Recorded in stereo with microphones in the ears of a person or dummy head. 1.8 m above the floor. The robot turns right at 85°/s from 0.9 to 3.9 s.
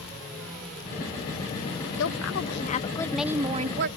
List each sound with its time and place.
2.0 s a woman speaking: 75° left; by 3.9 s 125° right